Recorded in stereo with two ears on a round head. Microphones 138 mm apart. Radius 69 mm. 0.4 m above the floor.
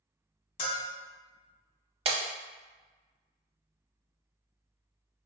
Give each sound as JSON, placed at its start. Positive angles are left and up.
{"t": 0.6, "sound": "a bell", "side_deg": 40, "distance_m": 0.9}
{"t": 2.0, "sound": "breaking glass", "side_deg": -40, "distance_m": 0.7}